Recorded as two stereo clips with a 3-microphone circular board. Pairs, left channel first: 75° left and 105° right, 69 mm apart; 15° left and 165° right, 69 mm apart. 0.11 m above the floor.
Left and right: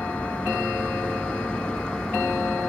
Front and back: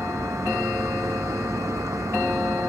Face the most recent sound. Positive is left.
turn(degrees=155)